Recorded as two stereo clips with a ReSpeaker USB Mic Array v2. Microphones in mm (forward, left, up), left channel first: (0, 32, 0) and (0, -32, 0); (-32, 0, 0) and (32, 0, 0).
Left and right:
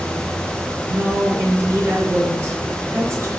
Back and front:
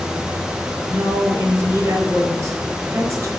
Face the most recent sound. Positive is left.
turn(degrees=-50)